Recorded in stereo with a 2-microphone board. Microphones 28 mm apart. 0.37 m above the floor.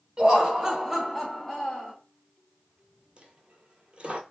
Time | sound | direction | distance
0.2 | laughter | 25° right (ahead or behind) | 1.1 m
3.2 | a dropped coin | 45° right (ahead or behind) | 0.6 m